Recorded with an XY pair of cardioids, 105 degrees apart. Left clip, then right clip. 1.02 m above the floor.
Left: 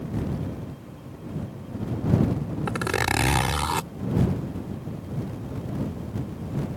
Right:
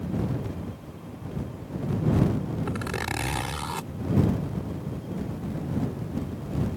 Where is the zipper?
50° left.